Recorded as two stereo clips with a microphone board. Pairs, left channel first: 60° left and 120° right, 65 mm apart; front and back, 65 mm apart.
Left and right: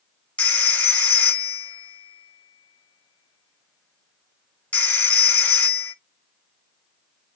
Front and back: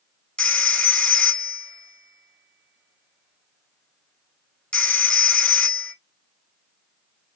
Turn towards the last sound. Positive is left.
turn(degrees=50)